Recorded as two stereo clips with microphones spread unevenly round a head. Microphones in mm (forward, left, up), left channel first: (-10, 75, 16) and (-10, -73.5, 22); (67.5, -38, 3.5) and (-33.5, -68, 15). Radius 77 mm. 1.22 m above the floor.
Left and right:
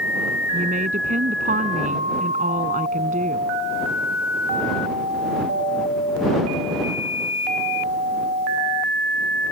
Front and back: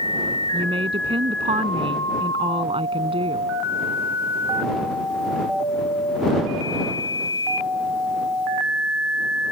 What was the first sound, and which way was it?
A woman speaking, 130° right.